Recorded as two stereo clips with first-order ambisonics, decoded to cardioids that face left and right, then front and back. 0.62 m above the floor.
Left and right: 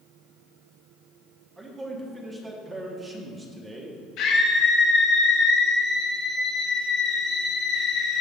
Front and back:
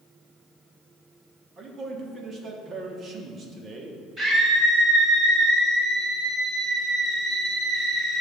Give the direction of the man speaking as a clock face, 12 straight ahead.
5 o'clock.